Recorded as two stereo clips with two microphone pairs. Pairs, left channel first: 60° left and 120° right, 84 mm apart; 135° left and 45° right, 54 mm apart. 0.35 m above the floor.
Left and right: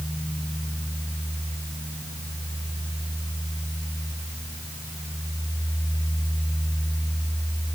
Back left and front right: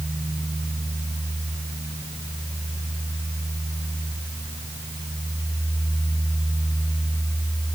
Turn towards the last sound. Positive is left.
No sound to turn to.